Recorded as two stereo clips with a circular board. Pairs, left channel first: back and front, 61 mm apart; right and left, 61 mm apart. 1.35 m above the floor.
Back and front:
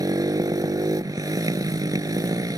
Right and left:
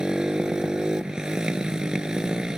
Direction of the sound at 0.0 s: 10° left.